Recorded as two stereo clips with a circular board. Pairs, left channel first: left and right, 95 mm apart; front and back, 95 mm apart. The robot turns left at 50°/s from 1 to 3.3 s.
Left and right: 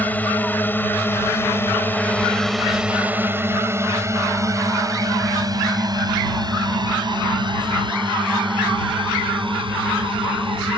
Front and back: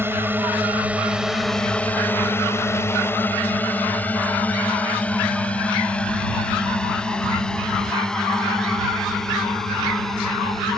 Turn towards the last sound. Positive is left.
turn(degrees=-85)